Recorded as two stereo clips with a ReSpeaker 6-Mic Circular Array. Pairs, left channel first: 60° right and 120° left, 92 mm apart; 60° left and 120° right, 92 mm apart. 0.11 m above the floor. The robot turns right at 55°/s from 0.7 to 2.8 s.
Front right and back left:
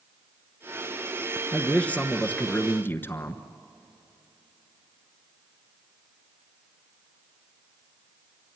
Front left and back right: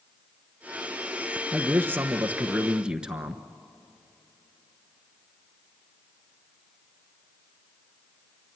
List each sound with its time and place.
1.5 s a man speaking: 130° right, 1.1 m; by 3.4 s 55° right, 1.1 m